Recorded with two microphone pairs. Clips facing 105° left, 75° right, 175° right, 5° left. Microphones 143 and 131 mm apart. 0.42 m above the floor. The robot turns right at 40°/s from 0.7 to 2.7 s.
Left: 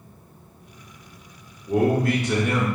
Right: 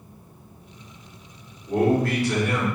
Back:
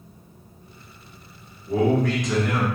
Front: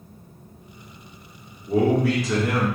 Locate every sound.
1.7 s a man speaking: 60° left, 1.0 m; by 2.7 s 100° left, 1.0 m